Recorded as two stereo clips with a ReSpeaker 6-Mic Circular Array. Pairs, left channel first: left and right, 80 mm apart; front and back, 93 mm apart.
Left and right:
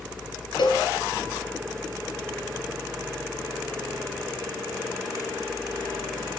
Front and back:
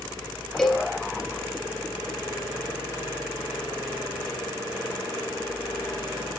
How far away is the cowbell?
About 3.5 m.